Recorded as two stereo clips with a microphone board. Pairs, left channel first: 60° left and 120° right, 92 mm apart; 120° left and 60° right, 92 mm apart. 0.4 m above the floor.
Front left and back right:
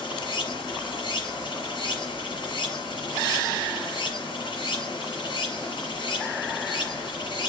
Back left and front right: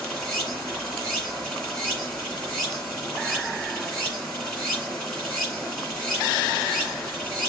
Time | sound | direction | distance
0.0 | running water | 40° left | 2.5 m